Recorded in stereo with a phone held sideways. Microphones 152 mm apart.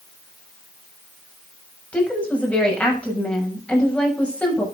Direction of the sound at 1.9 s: 10° left (ahead or behind).